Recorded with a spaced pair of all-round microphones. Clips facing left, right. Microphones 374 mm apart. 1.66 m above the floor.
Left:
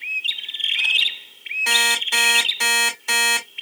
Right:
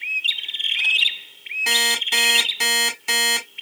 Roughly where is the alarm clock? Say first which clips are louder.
Right 1 dB; right.